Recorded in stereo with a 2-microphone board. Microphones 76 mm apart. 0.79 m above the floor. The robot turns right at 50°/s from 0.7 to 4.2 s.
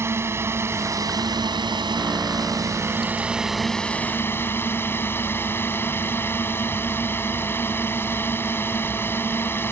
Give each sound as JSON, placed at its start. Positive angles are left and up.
{"t": 0.0, "sound": "a drone", "azimuth_deg": -145}